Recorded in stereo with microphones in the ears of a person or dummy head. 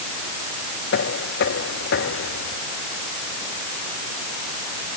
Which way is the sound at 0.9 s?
55° left (ahead or behind).